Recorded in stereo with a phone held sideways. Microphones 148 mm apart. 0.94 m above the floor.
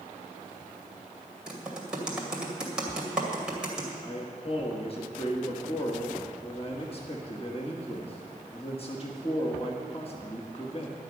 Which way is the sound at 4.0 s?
40° left (ahead or behind).